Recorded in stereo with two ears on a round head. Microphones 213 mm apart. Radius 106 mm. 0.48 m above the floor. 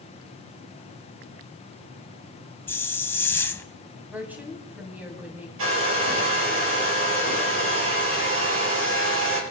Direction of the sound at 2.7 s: 10° left (ahead or behind).